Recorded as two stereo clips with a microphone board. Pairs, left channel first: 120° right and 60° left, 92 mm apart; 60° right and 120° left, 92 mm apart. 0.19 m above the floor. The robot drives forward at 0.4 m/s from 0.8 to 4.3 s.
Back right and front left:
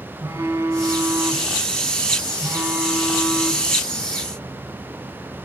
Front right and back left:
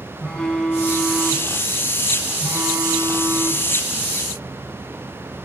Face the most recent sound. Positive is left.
turn(degrees=165)